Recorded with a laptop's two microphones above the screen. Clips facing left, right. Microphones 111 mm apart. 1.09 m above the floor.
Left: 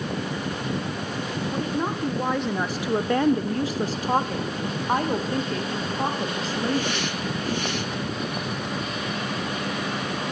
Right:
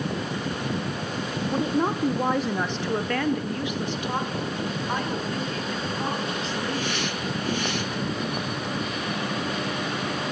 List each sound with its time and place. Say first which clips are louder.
1.5 s a woman speaking: right 4 dB; 20° right (ahead or behind), 0.9 m; by 7.1 s 40° left (ahead or behind), 2.5 m